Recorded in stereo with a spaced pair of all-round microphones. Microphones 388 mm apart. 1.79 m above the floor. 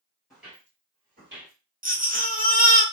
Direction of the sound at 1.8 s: 20° right (ahead or behind).